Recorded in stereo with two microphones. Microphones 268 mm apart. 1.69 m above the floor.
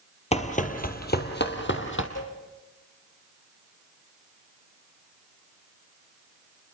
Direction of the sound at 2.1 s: 90° left.